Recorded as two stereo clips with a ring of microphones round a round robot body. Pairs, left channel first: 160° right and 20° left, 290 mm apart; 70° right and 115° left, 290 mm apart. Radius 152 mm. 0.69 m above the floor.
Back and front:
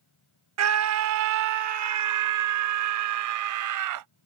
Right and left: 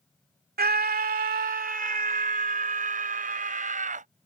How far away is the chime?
No chime in this recording.